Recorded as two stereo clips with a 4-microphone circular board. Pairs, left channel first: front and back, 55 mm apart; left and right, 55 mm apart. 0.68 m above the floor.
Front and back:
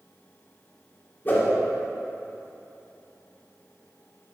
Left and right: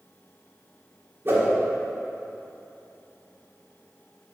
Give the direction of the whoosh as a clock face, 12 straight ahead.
2 o'clock.